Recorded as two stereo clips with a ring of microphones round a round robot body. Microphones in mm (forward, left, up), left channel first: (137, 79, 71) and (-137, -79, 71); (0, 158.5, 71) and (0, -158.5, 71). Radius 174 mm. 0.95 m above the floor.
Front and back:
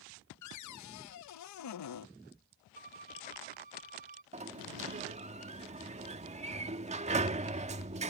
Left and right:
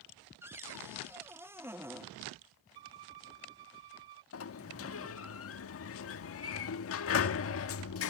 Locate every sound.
0.4 s a cupboard door: 5° right
2.8 s a violin: 85° right
4.3 s a sliding door: 140° left